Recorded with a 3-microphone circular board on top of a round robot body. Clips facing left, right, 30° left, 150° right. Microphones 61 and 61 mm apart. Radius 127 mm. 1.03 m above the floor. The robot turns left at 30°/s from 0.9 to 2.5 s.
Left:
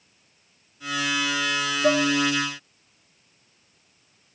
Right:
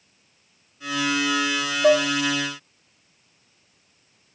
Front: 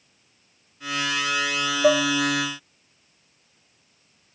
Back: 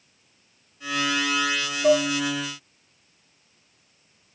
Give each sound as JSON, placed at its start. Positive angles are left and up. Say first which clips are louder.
{"t": 1.8, "sound": "dishes clattering", "louder": "right 4 dB, even", "azimuth_deg": -25, "distance_m": 1.6}